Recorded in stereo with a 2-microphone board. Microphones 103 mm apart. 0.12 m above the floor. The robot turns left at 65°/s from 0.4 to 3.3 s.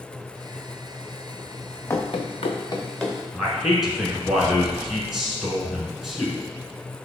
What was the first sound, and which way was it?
Running footsteps, 25° left (ahead or behind).